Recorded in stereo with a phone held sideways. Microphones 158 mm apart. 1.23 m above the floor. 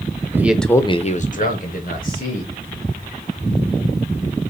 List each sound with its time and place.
0.3 s a man speaking: 15° right (ahead or behind), 0.8 m; by 2.5 s 55° left (ahead or behind), 1.9 m